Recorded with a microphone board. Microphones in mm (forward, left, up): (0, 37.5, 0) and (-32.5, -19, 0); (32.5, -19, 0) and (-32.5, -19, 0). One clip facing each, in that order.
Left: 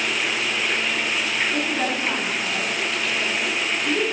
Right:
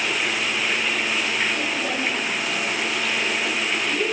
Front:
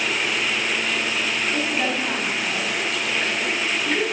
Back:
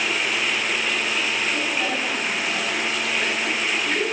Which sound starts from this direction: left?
A woman speaking, at 1.5 s.